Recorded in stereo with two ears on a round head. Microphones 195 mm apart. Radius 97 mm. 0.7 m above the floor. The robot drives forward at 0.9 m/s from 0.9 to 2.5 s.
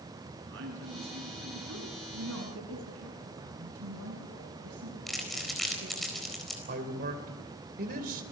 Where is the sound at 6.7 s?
45° right (ahead or behind), 3 m.